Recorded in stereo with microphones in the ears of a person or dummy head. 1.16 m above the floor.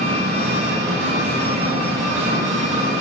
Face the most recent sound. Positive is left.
turn(degrees=-35)  # may be behind; listen again after turning